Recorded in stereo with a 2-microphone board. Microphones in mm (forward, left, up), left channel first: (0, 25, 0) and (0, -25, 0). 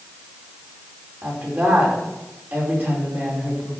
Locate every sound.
1.2 s a woman speaking: 40° right (ahead or behind), 5 m